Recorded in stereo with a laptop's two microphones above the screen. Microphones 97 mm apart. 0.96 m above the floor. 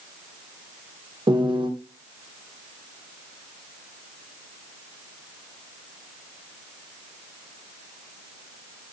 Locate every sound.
1.3 s a piano: 55° right (ahead or behind), 0.6 m